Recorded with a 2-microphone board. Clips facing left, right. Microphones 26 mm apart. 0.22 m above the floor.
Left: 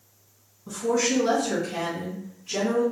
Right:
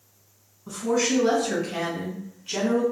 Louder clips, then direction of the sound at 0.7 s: Even; 10° right (ahead or behind).